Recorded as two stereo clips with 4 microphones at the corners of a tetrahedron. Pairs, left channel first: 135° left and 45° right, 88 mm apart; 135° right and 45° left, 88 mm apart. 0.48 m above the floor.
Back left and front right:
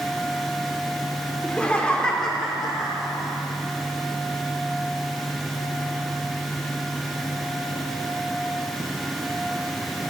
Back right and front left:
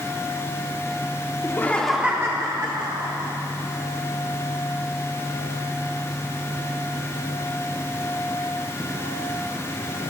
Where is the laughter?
155° right, 0.9 m; by 3.3 s 45° left, 1.8 m.